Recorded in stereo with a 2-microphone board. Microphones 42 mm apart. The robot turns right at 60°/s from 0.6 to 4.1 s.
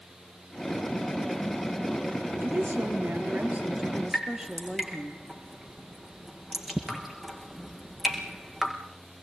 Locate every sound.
2.4 s a woman speaking: 110° right, 3.5 m; by 5.1 s 10° right, 3.5 m
4.1 s dripping: 10° right (ahead or behind), 5.5 m